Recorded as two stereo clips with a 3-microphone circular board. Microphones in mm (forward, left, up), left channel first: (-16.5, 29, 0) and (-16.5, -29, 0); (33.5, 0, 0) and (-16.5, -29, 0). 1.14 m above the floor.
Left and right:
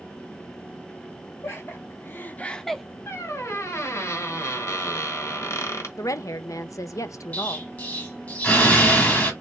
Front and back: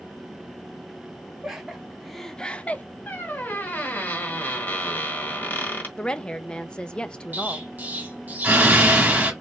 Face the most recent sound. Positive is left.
turn(degrees=155)